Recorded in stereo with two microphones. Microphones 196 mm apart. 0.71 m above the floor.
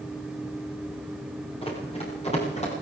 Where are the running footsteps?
30° left (ahead or behind), 10 m; by 2.7 s 35° left (ahead or behind), 10.5 m.